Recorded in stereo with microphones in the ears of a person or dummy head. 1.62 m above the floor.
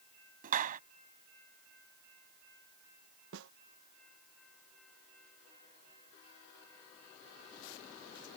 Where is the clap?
50° right (ahead or behind).